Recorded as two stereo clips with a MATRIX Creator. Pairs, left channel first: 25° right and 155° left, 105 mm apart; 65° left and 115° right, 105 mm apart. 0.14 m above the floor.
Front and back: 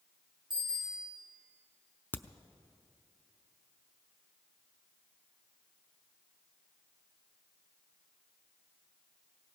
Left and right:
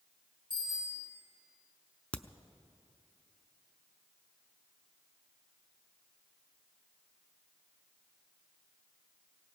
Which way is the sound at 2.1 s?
10° left.